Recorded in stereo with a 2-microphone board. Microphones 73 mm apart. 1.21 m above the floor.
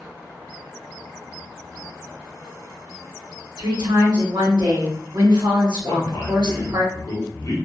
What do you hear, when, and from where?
3.6 s a woman speaking: 65° right (ahead or behind), 1.0 m
5.8 s a man speaking: 45° left (ahead or behind), 0.7 m